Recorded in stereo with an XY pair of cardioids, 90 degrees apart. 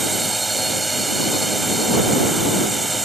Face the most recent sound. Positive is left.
turn(degrees=-15)